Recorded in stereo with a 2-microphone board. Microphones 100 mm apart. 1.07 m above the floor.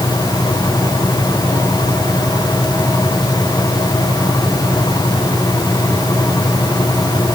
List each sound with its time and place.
Only background noise.